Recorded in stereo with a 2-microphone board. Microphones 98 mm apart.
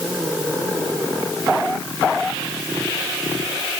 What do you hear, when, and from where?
Only background noise.